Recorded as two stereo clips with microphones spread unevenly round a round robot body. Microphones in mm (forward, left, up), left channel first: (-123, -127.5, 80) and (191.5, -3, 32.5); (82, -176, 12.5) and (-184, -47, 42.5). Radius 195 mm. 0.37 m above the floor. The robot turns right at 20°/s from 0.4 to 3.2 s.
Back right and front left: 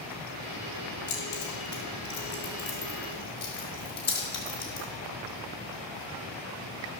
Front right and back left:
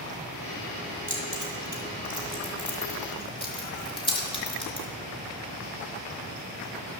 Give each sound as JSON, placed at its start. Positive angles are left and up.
{"t": 1.1, "sound": "keys jangling", "azimuth_deg": -140, "distance_m": 4.0}